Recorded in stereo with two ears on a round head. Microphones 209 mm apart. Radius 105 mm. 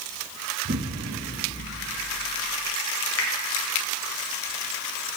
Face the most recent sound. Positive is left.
turn(degrees=55)  # may be behind; listen again after turning